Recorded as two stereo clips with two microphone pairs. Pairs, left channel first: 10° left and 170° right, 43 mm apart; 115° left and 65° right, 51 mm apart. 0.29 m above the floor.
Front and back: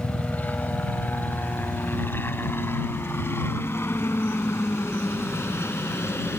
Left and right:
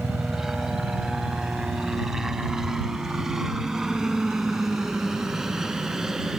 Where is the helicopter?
15° left.